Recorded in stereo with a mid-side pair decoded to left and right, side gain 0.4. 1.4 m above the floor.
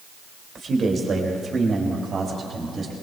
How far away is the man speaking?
About 2.5 m.